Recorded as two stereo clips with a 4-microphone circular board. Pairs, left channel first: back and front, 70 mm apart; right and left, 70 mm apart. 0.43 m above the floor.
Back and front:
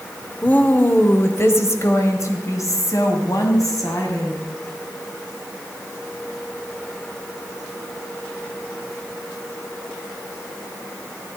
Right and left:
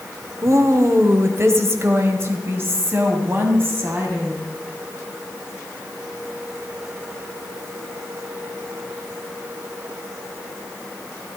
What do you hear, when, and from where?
0.4 s a woman speaking: 115° left, 1.1 m; by 4.4 s 145° left, 3.5 m